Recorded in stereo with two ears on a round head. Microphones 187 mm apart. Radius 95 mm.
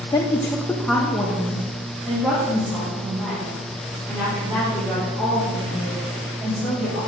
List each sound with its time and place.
0.1 s a woman speaking: 20° left (ahead or behind), 0.6 m; by 7.0 s 5° right (ahead or behind), 8 m